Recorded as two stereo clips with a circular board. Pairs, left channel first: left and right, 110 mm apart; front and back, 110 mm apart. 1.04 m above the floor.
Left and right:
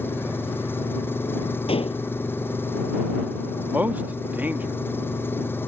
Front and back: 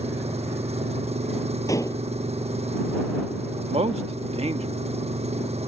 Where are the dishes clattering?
60° left.